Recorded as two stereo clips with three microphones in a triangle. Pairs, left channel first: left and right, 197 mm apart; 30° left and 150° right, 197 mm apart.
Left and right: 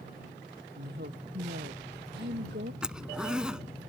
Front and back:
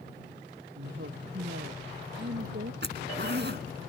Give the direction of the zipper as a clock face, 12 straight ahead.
6 o'clock.